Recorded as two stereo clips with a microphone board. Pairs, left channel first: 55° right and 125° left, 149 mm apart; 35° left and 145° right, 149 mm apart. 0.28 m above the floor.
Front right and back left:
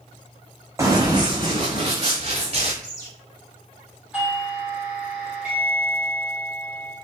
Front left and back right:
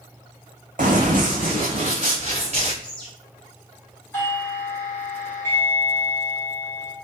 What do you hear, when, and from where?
0.8 s running footsteps: 165° right, 0.8 m; by 2.7 s 175° left, 1.9 m
2.8 s a bird: 110° left, 1.7 m
4.1 s a doorbell: 55° left, 1.7 m